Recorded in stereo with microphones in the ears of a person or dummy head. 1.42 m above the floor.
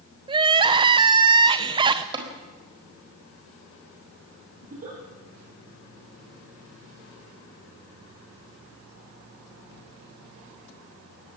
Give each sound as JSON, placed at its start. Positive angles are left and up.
{"t": 0.3, "sound": "crying", "side_deg": -25, "distance_m": 0.9}
{"t": 2.1, "sound": "tapping", "side_deg": -30, "distance_m": 4.0}
{"t": 4.6, "sound": "a giggle", "side_deg": -45, "distance_m": 9.5}